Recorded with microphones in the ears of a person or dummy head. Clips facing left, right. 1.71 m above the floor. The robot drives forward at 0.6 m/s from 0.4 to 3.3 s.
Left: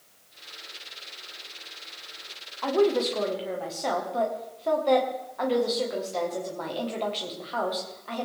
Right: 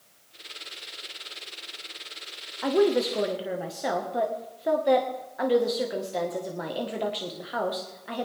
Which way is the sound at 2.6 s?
15° right (ahead or behind).